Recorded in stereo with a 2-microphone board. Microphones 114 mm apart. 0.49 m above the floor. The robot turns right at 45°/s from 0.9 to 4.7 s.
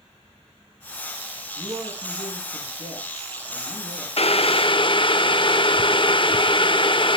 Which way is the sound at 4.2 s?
60° left (ahead or behind).